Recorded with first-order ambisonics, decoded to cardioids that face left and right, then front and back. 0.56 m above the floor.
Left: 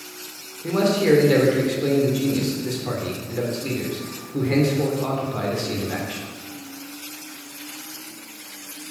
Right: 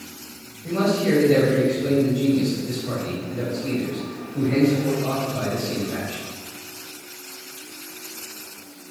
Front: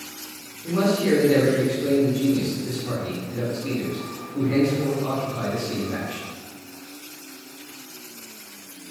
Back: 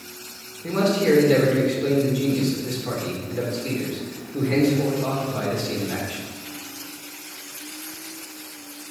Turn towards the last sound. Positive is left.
turn(degrees=115)